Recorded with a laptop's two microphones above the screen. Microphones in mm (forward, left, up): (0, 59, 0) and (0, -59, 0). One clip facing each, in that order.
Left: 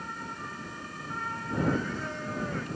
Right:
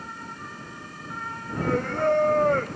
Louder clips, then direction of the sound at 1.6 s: Right 5 dB; 55° right (ahead or behind).